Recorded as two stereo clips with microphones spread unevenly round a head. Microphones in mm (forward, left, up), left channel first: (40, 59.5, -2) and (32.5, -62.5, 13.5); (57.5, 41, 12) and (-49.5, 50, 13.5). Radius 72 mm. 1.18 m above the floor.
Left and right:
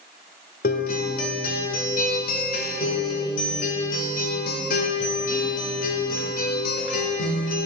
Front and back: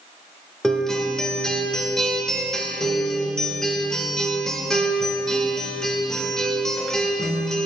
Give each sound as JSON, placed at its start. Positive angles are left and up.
{"t": 0.6, "sound": "a guitar", "azimuth_deg": 80, "distance_m": 1.5}